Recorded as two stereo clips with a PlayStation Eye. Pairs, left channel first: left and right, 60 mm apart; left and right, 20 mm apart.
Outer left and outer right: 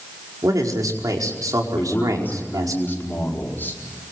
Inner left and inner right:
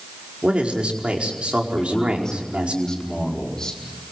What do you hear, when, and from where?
0.4 s a man speaking: 75° right (ahead or behind), 4.5 m
1.8 s a man speaking: 35° left (ahead or behind), 5 m